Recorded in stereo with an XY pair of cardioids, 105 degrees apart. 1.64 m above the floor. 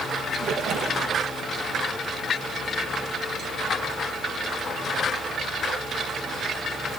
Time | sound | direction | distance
0.4 | a splash | 65° right | 2.5 m